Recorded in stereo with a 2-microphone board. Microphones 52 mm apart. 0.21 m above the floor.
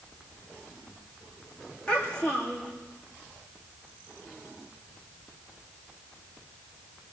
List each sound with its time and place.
1.9 s a child speaking: 20° left (ahead or behind), 8.5 m